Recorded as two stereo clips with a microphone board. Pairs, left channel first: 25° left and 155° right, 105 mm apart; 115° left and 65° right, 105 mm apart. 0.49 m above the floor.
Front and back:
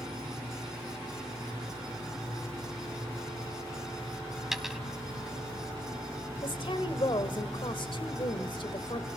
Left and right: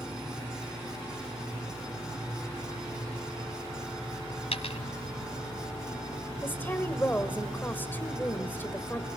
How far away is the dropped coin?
About 1.6 m.